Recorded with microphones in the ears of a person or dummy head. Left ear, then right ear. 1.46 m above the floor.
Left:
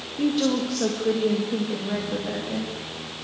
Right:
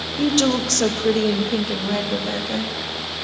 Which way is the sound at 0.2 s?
40° right (ahead or behind).